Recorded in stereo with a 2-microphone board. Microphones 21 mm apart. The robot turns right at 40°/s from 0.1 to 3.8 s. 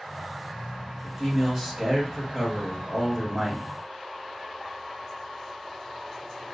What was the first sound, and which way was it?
A man speaking, 65° right.